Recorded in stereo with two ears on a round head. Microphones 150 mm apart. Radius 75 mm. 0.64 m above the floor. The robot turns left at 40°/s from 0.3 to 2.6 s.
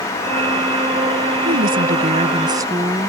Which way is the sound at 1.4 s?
110° right.